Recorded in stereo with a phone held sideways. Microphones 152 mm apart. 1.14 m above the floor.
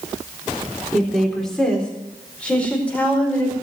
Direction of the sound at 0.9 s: Centre (ahead or behind).